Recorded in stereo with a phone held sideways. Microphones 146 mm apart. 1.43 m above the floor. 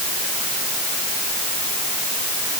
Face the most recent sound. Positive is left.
No sound to turn to.